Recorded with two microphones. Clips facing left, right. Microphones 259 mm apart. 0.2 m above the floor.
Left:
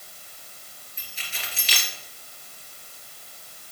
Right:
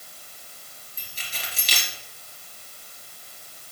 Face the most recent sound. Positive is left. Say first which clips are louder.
# right 1 dB
turn(degrees=-40)  # may be behind; listen again after turning